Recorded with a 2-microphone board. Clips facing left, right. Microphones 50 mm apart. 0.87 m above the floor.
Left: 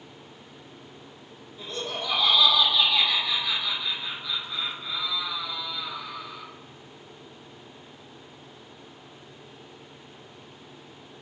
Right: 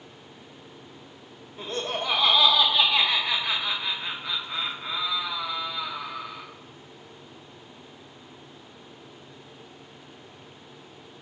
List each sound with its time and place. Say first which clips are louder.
1.6 s laughter: right 3 dB; 45° right (ahead or behind), 0.5 m